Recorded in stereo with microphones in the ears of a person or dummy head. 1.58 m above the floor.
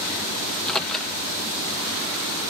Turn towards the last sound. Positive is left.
turn(degrees=0)  # may be behind; listen again after turning